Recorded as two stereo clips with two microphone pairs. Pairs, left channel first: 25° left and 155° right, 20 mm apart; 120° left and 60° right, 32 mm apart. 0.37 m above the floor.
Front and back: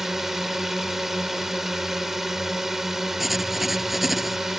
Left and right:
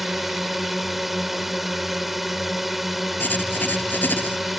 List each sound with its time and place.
0.0 s a drone: 130° right
3.2 s writing: 120° left